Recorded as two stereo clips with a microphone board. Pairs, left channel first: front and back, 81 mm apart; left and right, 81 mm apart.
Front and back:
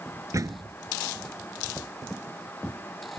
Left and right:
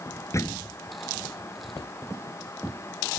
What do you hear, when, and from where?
0.3 s a door slam: 140° left